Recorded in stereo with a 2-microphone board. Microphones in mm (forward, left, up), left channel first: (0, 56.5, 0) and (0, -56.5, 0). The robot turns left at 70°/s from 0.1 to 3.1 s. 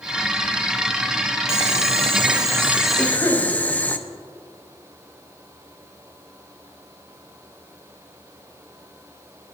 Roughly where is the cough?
Centre.